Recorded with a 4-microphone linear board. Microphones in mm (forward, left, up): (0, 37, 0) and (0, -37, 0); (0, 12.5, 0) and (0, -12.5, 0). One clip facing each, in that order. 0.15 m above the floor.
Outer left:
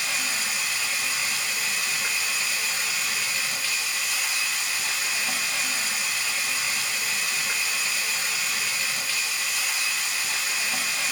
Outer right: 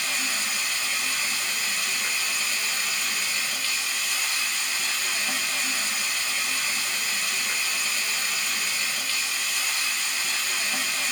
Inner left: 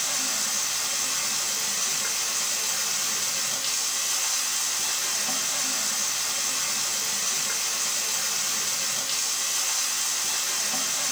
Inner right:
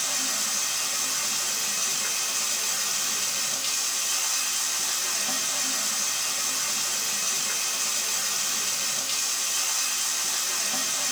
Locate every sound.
0.0 s running water: 5° left (ahead or behind), 0.7 m